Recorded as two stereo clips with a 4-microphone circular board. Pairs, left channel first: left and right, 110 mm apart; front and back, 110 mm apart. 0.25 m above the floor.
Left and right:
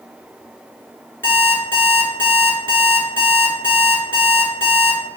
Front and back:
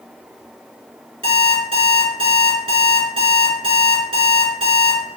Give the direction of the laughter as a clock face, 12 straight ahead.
No laughter in this recording.